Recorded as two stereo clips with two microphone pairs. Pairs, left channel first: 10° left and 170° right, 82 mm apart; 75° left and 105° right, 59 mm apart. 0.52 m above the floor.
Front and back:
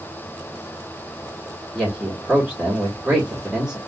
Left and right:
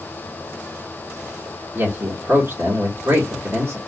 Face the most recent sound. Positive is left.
turn(degrees=-95)